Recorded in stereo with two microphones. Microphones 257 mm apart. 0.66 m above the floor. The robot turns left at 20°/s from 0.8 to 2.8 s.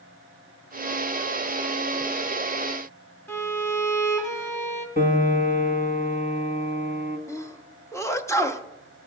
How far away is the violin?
About 1.2 m.